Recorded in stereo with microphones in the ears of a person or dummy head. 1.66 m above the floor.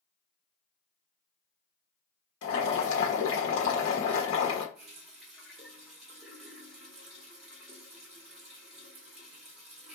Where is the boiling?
85° left, 1.0 m.